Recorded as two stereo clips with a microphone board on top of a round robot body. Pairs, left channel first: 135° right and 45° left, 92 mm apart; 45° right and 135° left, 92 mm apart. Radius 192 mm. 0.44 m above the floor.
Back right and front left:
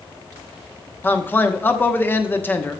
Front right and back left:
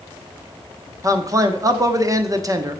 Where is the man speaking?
165° left, 1.4 m.